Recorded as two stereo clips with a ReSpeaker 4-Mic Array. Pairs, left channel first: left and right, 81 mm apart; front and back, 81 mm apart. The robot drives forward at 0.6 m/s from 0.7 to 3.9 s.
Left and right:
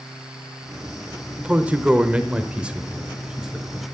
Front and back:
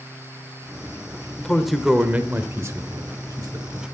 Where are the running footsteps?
I don't hear running footsteps.